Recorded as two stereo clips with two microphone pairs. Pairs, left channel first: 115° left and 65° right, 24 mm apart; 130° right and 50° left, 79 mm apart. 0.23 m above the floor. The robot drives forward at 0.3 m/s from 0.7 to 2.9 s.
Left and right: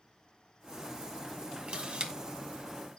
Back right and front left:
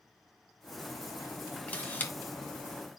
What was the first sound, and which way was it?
A camera shutter, 70° right.